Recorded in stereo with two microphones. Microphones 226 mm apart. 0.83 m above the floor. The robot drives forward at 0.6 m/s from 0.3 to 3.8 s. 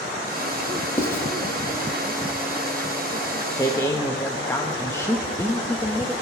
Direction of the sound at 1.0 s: 10° left (ahead or behind).